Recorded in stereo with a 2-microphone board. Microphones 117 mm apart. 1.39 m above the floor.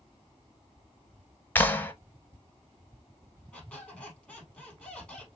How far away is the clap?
About 0.6 m.